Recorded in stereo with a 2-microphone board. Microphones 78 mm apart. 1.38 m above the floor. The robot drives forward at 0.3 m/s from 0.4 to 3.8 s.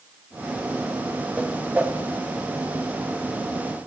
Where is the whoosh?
20° right (ahead or behind), 0.9 m.